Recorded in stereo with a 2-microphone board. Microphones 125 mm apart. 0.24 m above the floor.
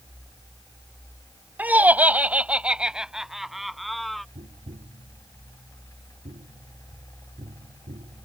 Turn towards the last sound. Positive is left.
turn(degrees=-75)  # may be behind; listen again after turning